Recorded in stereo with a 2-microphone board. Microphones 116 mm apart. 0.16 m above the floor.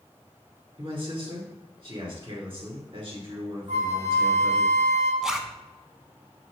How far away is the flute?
About 2.5 m.